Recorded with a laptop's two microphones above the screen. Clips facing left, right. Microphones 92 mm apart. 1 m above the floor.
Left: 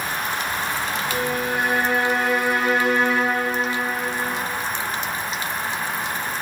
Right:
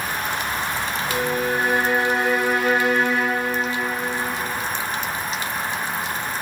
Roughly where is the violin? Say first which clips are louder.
Right 3 dB; right.